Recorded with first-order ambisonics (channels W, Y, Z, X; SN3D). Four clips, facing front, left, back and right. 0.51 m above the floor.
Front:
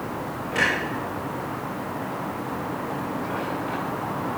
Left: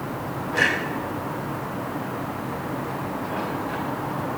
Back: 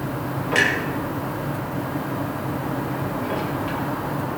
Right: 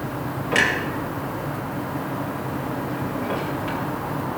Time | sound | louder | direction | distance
0.5 | a clunk | right 1 dB, back 3 dB | 125° right | 6.5 m